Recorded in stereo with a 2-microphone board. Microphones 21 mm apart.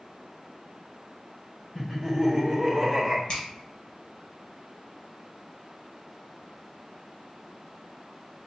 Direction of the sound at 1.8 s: 15° left (ahead or behind).